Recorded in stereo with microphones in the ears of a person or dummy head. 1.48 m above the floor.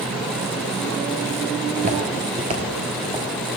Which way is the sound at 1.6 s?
30° right (ahead or behind).